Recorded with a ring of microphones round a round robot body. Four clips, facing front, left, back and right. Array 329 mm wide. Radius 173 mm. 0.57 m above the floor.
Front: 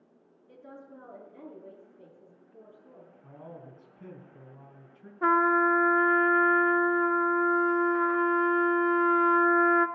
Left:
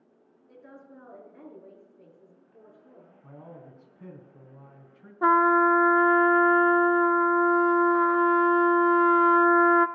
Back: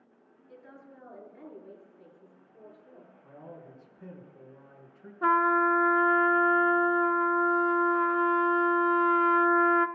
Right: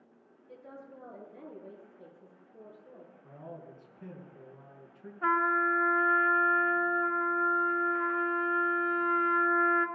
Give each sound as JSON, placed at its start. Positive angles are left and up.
{"t": 0.5, "sound": "a woman speaking", "azimuth_deg": 40, "distance_m": 7.5}
{"t": 3.2, "sound": "a man speaking", "azimuth_deg": 55, "distance_m": 5.0}
{"t": 5.2, "sound": "a trumpet", "azimuth_deg": 85, "distance_m": 0.6}